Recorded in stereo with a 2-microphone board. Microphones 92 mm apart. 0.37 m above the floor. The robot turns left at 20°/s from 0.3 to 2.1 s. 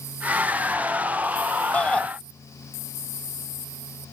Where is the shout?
15° left (ahead or behind); by 2.1 s 10° left (ahead or behind).